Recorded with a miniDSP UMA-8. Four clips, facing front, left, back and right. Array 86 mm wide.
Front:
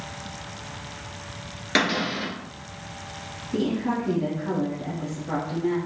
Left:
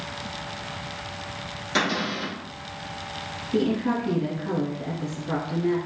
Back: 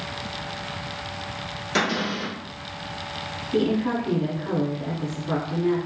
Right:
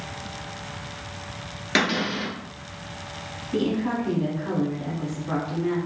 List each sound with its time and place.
1.8 s a cupboard door: 50° right, 1.3 m
3.5 s a woman speaking: 125° right, 1.4 m